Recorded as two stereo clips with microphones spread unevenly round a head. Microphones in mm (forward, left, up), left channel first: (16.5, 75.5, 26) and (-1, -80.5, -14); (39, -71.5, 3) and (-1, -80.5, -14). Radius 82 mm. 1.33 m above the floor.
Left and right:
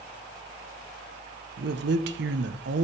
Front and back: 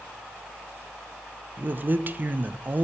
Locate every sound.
1.6 s a man speaking: 120° right, 0.5 m